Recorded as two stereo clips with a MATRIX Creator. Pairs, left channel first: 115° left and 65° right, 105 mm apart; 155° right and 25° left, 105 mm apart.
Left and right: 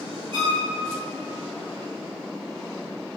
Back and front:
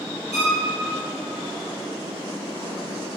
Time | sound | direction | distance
0.3 | a violin | 40° right | 1.3 m